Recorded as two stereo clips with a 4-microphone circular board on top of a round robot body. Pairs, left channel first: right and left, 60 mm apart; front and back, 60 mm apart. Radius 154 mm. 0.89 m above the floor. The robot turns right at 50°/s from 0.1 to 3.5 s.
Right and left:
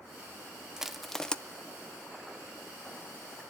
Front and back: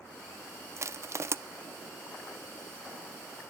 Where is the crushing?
170° left, 0.8 m; by 1.4 s 160° right, 0.8 m.